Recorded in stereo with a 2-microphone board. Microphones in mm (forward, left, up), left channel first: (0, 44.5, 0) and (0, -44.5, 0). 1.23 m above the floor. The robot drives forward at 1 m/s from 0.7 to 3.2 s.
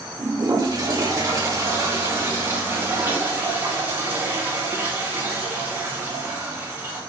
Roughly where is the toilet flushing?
Right.